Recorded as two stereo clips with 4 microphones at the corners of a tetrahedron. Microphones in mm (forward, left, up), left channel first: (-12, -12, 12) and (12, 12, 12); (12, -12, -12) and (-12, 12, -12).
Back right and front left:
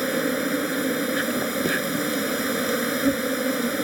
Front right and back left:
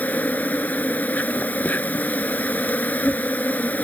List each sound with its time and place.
0.0 s an insect: 40° right